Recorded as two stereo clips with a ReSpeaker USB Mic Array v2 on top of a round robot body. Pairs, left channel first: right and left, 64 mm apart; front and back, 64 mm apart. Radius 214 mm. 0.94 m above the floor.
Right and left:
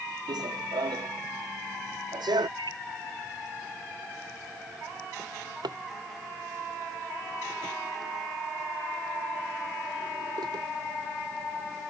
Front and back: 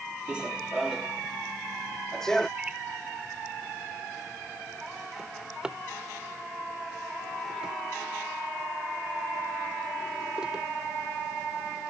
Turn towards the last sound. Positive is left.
turn(degrees=100)